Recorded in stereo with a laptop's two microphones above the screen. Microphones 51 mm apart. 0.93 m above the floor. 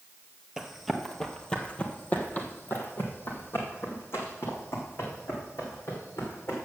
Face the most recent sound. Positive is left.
turn(degrees=55)  # may be behind; listen again after turning